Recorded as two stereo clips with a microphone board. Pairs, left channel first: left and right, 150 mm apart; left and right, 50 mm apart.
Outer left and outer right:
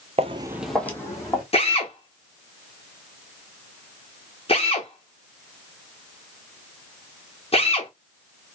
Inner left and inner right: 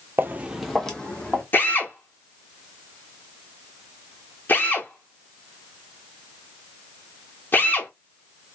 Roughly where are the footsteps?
Right.